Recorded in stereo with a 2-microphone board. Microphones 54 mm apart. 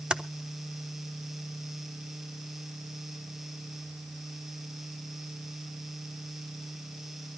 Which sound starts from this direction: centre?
Typing on a keyboard, at 0.1 s.